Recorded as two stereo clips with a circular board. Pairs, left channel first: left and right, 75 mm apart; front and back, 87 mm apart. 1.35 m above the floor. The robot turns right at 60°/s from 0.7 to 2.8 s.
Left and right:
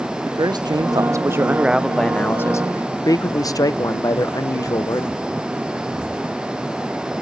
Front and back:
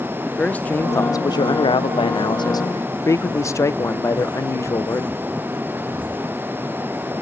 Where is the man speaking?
70° right, 0.5 m; by 5.2 s 55° left, 0.5 m.